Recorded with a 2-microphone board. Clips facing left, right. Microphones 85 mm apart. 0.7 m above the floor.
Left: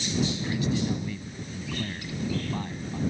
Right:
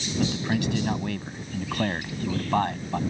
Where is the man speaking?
70° right (ahead or behind).